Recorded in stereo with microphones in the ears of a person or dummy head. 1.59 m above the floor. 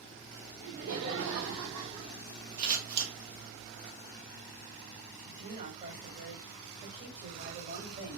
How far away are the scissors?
About 1.3 m.